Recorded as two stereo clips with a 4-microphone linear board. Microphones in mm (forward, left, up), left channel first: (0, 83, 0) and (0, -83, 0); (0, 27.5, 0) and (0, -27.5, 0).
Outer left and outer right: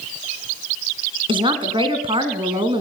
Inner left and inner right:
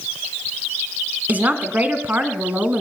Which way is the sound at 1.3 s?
35° right (ahead or behind).